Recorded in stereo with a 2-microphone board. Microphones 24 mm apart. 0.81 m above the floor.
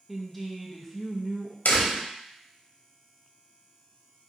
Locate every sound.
0.1 s a woman speaking: 5° left (ahead or behind), 0.6 m
1.6 s a door slam: 75° left (ahead or behind), 0.9 m